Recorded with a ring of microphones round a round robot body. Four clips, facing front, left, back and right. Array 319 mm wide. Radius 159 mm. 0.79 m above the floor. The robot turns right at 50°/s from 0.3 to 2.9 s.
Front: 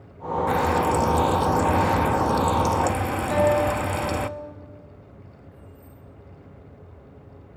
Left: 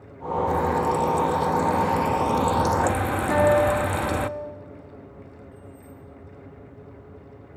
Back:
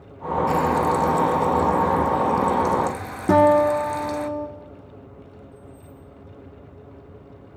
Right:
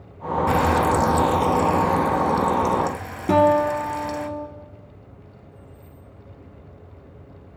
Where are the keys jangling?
70° left, 7 m.